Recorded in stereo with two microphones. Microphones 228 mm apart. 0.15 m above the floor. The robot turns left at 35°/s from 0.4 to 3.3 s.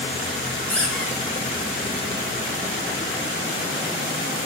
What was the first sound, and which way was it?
A squeak, 10° left (ahead or behind).